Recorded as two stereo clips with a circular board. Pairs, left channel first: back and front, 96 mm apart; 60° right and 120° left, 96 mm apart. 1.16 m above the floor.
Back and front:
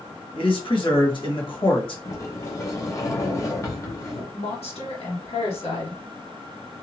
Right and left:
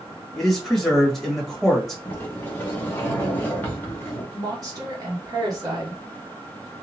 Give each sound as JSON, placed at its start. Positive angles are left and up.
{"t": 0.3, "sound": "a man speaking", "azimuth_deg": -150, "distance_m": 1.4}
{"t": 2.0, "sound": "a sliding door", "azimuth_deg": -125, "distance_m": 0.8}
{"t": 4.3, "sound": "a woman speaking", "azimuth_deg": 170, "distance_m": 1.4}